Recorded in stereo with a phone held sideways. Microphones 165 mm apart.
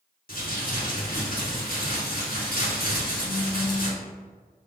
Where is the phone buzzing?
5° left (ahead or behind), 1.0 m.